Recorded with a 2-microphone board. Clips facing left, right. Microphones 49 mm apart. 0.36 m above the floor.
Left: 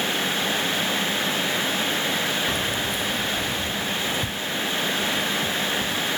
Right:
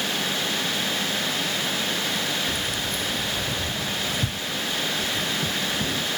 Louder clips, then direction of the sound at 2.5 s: Left 3 dB; 50° left (ahead or behind).